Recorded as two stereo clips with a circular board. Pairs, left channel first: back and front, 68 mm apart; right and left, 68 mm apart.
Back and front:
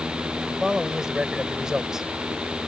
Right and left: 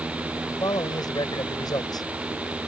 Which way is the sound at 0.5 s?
80° right.